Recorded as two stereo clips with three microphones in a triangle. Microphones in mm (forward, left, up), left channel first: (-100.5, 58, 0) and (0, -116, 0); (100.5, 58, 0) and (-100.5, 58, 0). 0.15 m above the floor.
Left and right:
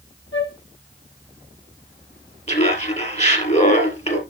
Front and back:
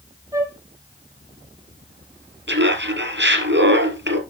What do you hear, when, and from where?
0.3 s a flute: 105° left, 0.9 m
2.5 s laughter: 175° left, 2.5 m